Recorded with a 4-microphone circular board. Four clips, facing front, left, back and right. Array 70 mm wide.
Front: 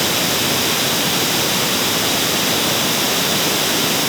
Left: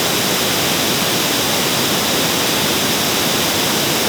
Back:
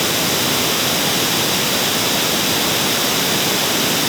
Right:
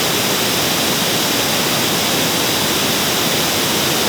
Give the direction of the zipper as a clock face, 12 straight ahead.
No zipper in this recording.